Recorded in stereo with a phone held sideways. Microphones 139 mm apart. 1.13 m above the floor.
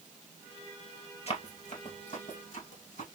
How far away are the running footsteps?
About 1.5 m.